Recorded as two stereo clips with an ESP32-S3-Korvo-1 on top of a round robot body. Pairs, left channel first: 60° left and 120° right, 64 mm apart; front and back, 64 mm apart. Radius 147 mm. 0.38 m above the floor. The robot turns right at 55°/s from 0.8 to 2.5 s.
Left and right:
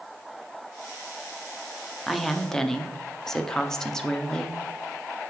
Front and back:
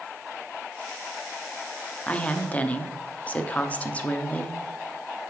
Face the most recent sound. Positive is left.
turn(degrees=-5)